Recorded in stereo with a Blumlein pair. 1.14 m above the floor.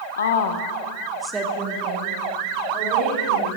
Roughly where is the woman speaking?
Left.